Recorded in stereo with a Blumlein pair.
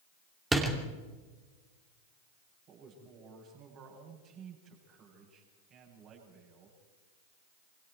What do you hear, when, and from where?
0.5 s a door slam: 10° right, 3 m
2.7 s a man speaking: 35° right, 8.5 m